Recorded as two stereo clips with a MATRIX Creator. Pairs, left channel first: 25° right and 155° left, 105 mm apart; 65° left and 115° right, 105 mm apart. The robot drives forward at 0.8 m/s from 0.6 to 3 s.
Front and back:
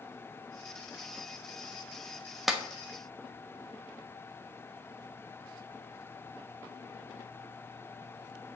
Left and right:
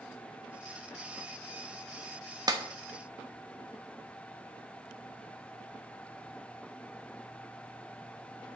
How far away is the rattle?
No rattle in this recording.